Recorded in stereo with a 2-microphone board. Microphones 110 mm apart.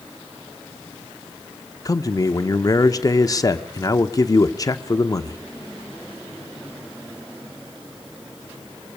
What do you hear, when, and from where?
1.9 s a man speaking: 35° left (ahead or behind), 0.9 m